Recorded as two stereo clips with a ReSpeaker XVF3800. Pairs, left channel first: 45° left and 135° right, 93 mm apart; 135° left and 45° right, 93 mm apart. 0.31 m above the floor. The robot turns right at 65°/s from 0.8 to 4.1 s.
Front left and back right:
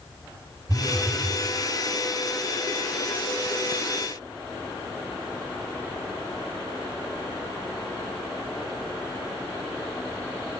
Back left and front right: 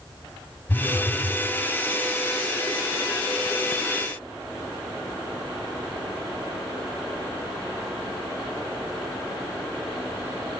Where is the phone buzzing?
150° right, 0.5 m; by 1.4 s 110° right, 0.5 m.